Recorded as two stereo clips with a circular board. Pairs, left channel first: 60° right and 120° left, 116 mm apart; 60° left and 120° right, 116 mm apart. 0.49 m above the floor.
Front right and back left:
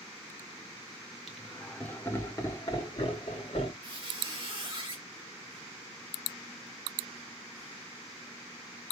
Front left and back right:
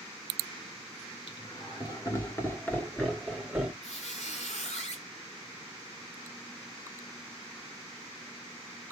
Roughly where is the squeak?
Left.